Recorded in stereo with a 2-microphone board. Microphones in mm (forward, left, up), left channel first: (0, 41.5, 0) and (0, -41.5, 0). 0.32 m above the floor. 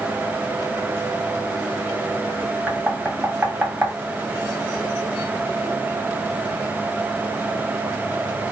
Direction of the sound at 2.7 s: 20° right (ahead or behind).